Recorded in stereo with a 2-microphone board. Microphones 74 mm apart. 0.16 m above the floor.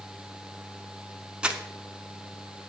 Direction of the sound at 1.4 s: 15° right (ahead or behind).